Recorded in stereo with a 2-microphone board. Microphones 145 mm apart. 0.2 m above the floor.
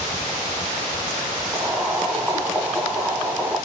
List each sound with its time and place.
1.5 s boiling: 10° right (ahead or behind), 1.5 m